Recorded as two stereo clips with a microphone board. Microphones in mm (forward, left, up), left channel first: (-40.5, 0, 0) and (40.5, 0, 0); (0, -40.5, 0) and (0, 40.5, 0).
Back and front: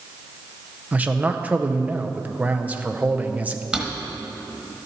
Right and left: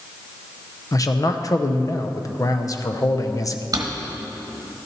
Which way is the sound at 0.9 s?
65° right.